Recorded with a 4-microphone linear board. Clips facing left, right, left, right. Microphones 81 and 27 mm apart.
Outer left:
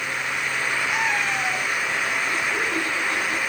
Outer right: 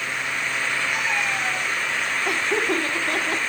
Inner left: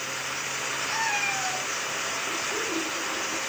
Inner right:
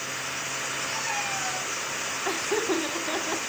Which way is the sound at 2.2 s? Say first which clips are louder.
Outer right 2 dB, inner right 3 dB; 75° right (ahead or behind).